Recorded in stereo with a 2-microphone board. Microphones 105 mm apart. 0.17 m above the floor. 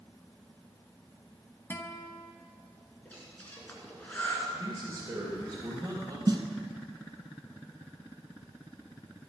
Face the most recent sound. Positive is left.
turn(degrees=-45)  # may be behind; listen again after turning